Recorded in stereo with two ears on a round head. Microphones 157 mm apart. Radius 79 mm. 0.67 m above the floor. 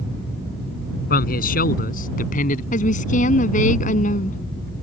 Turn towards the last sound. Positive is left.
turn(degrees=50)  # may be behind; listen again after turning